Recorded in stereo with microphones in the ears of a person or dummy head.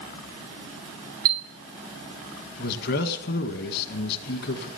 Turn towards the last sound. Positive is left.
turn(degrees=55)  # may be behind; listen again after turning